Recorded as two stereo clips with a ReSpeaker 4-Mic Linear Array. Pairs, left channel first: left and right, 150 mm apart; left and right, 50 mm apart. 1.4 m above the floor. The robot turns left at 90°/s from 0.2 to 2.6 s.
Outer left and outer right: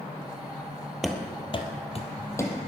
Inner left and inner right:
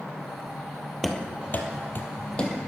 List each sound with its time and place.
1.0 s running footsteps: centre (ahead or behind), 1.7 m; by 2.6 s 5° left (ahead or behind), 2 m